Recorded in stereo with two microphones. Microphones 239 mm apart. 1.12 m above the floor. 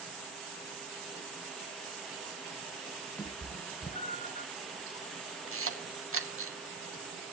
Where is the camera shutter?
70° right (ahead or behind), 2 m.